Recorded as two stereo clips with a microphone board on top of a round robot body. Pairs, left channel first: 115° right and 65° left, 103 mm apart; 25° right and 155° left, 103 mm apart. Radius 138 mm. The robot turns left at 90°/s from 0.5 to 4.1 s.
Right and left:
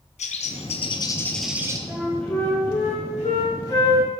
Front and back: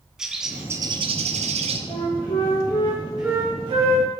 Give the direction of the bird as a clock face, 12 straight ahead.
4 o'clock.